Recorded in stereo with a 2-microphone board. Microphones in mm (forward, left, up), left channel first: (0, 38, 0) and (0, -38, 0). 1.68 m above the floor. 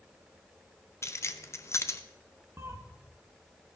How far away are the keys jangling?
About 0.8 m.